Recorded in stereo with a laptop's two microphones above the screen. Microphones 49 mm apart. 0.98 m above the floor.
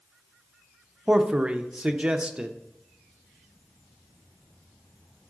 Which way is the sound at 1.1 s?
20° right (ahead or behind).